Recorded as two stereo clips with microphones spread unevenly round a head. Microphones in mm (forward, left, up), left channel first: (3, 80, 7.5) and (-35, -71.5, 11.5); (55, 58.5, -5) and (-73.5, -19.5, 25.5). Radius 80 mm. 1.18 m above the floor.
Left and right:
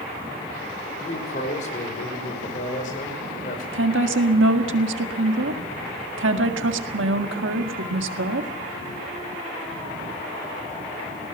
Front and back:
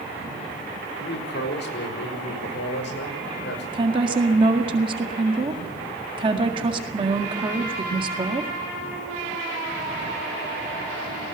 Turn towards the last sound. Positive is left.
turn(degrees=-85)